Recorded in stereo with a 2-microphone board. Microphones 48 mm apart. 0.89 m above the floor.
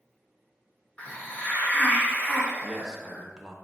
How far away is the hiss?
About 0.7 m.